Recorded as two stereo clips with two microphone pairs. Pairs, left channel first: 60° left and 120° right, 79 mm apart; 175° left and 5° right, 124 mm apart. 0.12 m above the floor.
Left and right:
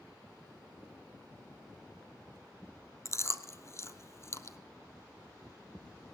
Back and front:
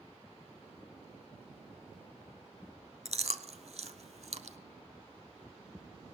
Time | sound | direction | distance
3.0 | chewing | 10° left | 0.7 m